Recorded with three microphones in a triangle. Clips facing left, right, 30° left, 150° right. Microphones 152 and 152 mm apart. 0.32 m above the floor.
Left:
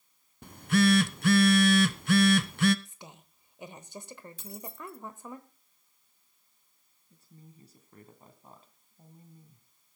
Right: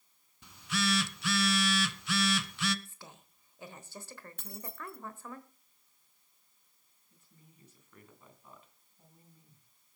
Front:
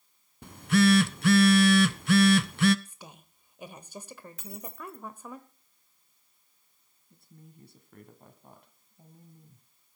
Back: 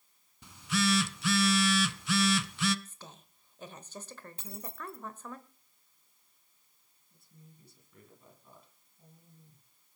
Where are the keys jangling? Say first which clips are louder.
Left 2 dB, front 1 dB; 95° right, 1.2 m.